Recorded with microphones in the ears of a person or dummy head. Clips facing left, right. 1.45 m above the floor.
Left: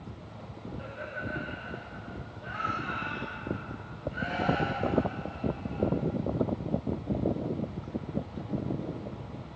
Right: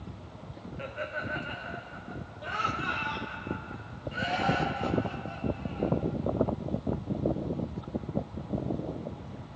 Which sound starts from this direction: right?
Laughter, at 0.8 s.